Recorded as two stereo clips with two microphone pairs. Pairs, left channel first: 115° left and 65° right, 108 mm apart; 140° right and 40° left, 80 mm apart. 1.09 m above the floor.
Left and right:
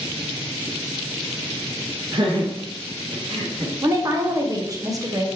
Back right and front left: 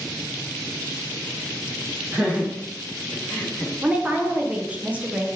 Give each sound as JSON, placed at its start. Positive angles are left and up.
{"t": 2.1, "sound": "laughter", "azimuth_deg": -30, "distance_m": 1.0}
{"t": 3.8, "sound": "a woman speaking", "azimuth_deg": -25, "distance_m": 0.8}